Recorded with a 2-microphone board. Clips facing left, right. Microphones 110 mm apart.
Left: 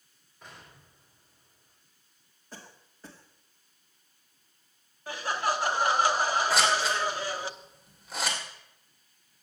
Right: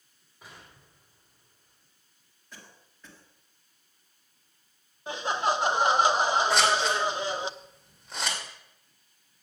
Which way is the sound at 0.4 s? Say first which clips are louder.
Even; 5° right (ahead or behind).